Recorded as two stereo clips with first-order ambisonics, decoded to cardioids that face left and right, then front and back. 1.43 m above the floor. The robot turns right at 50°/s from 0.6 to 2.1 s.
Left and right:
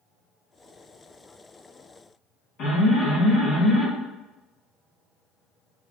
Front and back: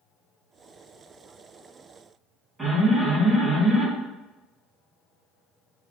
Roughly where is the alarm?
Left.